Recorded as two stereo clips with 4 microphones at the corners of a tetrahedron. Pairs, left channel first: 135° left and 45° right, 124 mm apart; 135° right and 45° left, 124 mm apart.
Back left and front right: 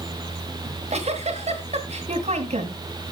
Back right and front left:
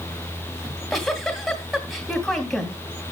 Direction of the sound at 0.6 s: 45° right.